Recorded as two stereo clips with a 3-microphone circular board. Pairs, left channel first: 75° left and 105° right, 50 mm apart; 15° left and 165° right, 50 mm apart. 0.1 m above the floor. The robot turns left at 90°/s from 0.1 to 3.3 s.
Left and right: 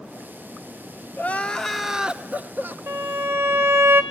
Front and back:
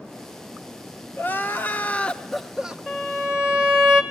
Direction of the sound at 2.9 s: 85° right.